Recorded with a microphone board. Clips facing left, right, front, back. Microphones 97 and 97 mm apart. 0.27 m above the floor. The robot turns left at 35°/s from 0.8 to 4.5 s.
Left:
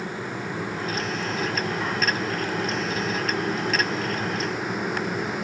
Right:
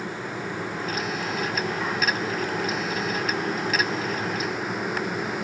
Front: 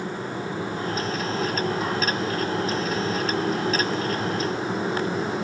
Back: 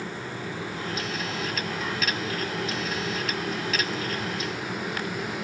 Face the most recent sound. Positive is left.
No sound to turn to.